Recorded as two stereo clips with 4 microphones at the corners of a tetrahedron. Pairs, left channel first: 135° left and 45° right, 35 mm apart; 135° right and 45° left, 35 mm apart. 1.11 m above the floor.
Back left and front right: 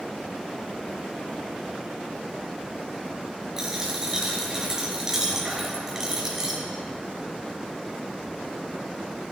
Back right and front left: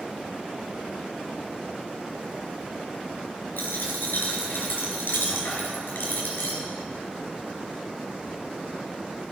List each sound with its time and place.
3.6 s a dropped coin: 120° right, 3.5 m